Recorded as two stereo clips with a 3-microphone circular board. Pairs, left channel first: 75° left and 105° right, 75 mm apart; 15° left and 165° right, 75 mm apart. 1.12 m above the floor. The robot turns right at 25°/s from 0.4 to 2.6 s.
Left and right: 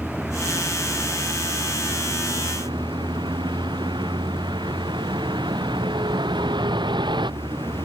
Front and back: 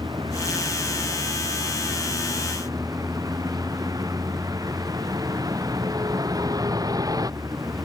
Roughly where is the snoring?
I don't hear snoring.